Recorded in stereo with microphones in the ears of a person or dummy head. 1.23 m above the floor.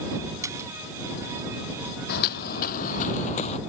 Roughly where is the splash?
Centre.